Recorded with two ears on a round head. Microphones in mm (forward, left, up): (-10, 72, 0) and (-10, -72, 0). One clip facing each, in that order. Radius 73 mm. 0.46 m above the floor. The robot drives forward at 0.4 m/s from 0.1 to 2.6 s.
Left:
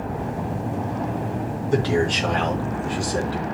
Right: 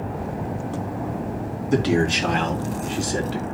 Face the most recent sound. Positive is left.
turn(degrees=-25)  # may be behind; listen again after turning